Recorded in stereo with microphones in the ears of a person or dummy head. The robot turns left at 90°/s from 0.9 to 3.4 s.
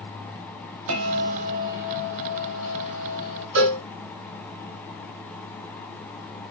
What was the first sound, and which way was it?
A bell, 90° right.